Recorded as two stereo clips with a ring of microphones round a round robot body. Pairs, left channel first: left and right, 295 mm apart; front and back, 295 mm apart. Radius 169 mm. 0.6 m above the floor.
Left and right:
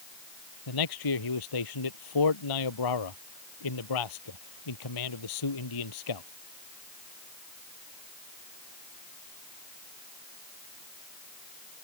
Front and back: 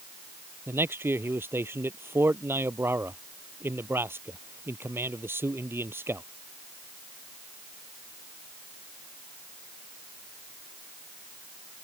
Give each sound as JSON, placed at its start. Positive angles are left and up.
{"t": 0.7, "sound": "a man speaking", "azimuth_deg": 95}